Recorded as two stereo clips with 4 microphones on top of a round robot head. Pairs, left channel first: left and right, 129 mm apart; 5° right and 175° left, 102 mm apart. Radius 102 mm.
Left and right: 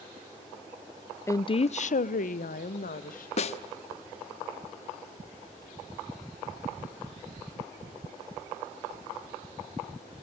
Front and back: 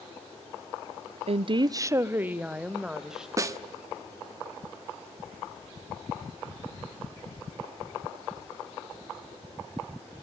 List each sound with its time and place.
1.3 s a woman speaking: 160° left, 0.5 m; by 3.3 s 90° left, 2 m
3.4 s a snare drum: 120° left, 1.0 m